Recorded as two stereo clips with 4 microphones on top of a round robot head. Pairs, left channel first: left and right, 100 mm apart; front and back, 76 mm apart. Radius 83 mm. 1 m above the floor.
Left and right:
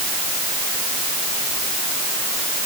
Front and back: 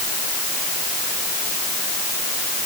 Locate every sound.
Only background noise.